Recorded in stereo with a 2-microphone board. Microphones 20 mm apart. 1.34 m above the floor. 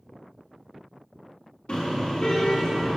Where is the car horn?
70° left (ahead or behind), 6 m; by 3.0 s 50° left (ahead or behind), 6.5 m.